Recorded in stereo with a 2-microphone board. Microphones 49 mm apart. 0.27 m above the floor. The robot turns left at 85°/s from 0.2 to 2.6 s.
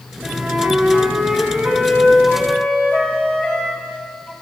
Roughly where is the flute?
Ahead right.